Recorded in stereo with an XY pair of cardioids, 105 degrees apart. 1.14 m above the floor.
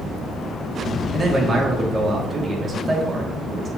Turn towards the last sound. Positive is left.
turn(degrees=-35)